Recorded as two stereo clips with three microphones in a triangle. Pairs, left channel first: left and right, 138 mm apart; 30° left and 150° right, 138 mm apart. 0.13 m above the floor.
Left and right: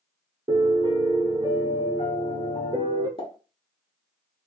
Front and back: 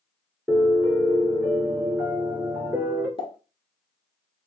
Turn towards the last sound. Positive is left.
turn(degrees=60)